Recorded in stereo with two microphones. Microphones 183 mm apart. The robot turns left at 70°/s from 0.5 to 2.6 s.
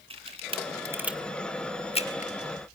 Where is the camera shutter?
30° right (ahead or behind), 1.6 m; by 2.3 s 40° left (ahead or behind), 1.6 m.